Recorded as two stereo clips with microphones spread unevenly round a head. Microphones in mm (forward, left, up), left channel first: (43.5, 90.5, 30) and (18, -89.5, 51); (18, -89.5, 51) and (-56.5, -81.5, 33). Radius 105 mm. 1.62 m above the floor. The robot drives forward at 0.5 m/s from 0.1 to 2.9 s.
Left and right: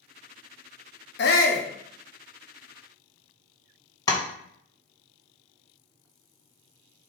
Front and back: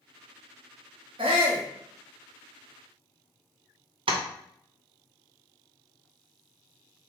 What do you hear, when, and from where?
1.2 s a shout: 120° left, 0.6 m; by 1.7 s 140° left, 0.7 m
4.1 s tapping: 155° left, 0.6 m